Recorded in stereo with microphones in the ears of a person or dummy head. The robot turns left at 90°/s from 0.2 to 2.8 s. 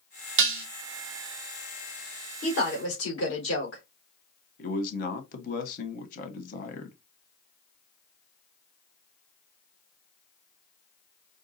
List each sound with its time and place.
0.4 s dishes clattering: 65° right (ahead or behind), 0.7 m; by 0.7 s 60° right (ahead or behind), 0.7 m
2.4 s a woman speaking: 135° left, 3 m; by 3.8 s 100° left, 3 m
4.6 s a man speaking: 45° left (ahead or behind), 1.3 m